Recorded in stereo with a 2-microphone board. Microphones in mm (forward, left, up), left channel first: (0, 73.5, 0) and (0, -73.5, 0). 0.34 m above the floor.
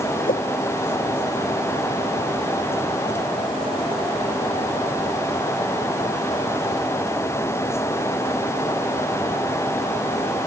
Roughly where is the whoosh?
Left.